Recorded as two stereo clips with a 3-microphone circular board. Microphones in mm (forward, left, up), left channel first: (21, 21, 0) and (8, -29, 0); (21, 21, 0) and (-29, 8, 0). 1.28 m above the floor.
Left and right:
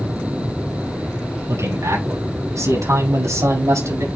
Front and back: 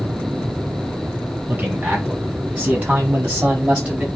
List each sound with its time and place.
1.5 s a man speaking: 110° right, 8 m; by 4.0 s 95° right, 6.5 m